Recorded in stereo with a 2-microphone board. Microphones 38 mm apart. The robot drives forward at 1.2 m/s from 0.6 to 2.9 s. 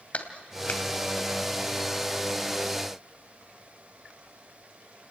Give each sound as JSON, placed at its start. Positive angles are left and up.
{"t": 0.1, "sound": "a clap", "side_deg": 35, "distance_m": 2.0}